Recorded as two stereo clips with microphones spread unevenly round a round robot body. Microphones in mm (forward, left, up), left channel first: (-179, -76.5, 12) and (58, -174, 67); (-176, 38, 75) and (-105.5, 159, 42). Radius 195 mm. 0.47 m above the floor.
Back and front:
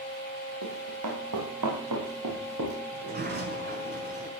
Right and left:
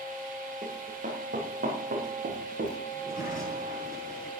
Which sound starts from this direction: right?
A sliding door, at 2.9 s.